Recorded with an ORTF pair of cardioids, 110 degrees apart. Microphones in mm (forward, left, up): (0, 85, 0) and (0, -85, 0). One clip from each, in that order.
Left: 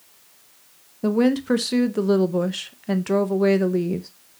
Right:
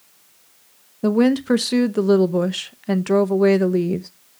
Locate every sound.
1.0 s a woman speaking: 15° right, 0.7 m